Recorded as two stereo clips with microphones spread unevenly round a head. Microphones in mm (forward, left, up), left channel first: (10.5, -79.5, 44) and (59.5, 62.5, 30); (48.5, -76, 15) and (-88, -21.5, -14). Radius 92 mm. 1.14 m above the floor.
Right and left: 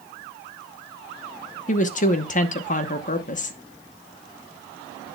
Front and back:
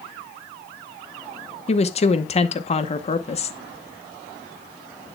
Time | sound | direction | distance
1.7 | a woman speaking | 70° right | 0.9 m